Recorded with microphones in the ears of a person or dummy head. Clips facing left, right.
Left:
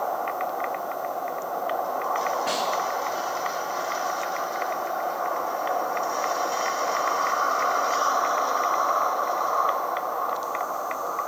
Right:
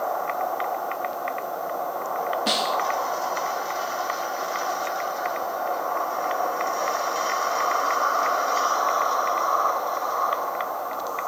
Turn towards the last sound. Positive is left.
turn(degrees=-55)  # may be behind; listen again after turning